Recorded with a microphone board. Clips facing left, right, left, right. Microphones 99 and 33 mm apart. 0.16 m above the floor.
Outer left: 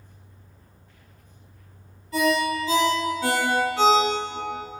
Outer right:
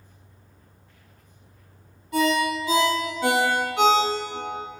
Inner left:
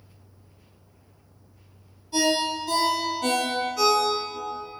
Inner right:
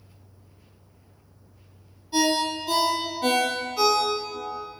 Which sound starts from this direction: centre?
A ringtone, at 2.1 s.